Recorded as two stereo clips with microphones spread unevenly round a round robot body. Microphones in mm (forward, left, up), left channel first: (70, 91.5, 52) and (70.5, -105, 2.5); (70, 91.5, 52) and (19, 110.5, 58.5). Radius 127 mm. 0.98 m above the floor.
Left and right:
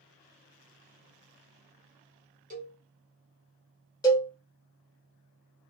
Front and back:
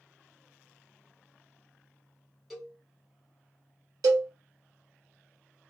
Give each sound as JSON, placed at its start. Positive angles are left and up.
{"t": 2.5, "sound": "a cowbell", "azimuth_deg": -105, "distance_m": 1.2}
{"t": 4.0, "sound": "a cowbell", "azimuth_deg": 165, "distance_m": 0.6}